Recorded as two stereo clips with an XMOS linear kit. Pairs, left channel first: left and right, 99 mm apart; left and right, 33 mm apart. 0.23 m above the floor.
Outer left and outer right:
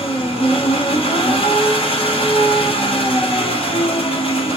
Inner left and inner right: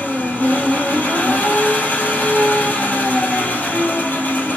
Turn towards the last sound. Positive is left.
turn(degrees=75)  # may be behind; listen again after turning